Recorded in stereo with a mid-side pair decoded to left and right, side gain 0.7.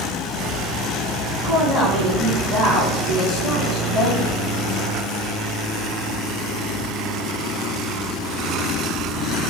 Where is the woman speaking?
65° left, 1.9 m.